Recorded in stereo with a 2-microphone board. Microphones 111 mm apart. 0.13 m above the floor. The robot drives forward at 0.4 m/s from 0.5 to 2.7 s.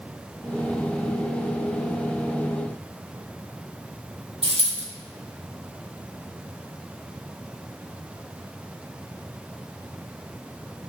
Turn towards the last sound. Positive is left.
turn(degrees=-65)  # may be behind; listen again after turning